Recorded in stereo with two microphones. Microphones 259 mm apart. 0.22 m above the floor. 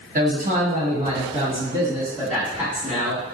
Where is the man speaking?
35° right (ahead or behind), 1.2 m; by 3.2 s centre (ahead or behind), 1.6 m.